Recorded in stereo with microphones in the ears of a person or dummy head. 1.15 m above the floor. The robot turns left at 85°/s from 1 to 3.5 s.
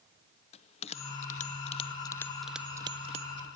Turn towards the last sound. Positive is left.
turn(degrees=-35)  # may be behind; listen again after turning